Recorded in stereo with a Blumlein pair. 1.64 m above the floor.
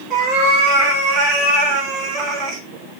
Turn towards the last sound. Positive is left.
turn(degrees=-25)